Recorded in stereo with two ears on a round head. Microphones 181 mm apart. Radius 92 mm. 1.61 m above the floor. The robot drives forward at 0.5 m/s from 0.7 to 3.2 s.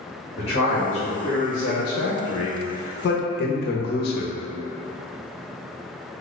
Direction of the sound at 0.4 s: 25° left (ahead or behind).